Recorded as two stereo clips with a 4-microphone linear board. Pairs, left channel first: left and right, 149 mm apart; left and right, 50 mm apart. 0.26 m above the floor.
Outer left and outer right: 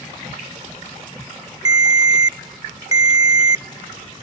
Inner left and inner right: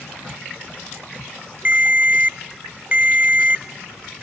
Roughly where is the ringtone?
Right.